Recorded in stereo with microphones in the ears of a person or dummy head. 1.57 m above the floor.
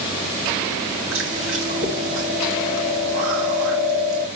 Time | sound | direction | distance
1.1 | chewing | 70° right (ahead or behind) | 2.5 m